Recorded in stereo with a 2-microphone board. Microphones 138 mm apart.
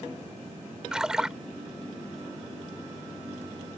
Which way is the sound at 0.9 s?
5° right (ahead or behind).